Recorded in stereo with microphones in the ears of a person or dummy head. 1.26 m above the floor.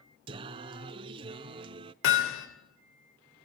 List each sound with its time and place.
0.3 s singing: 25° right (ahead or behind), 0.8 m
2.0 s hammering: 65° left (ahead or behind), 3 m